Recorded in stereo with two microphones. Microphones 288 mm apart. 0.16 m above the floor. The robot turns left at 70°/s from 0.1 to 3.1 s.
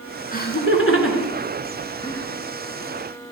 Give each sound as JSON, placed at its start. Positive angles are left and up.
{"t": 0.3, "sound": "laughter", "side_deg": 30, "distance_m": 2.5}